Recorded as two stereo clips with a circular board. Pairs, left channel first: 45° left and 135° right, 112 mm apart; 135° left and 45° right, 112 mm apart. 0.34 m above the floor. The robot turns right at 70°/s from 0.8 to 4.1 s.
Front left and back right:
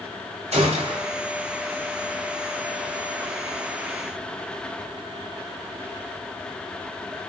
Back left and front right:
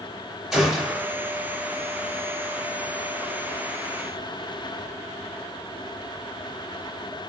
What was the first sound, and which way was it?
A gunshot, 135° right.